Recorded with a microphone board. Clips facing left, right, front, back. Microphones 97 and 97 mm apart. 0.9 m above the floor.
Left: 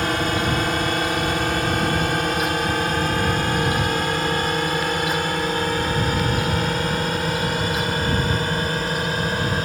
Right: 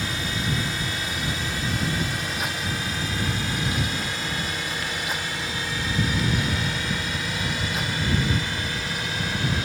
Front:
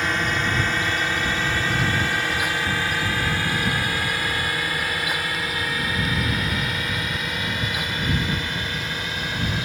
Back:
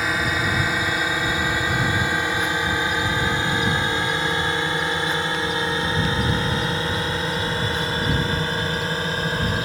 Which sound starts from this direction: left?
A drone, at 0.0 s.